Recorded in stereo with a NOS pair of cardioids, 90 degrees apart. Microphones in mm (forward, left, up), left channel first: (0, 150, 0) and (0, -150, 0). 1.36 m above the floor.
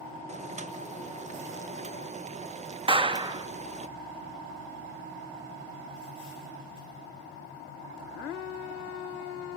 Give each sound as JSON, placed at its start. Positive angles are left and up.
{"t": 0.3, "sound": "boiling", "azimuth_deg": -25, "distance_m": 1.3}
{"t": 2.9, "sound": "a clap", "azimuth_deg": -15, "distance_m": 2.0}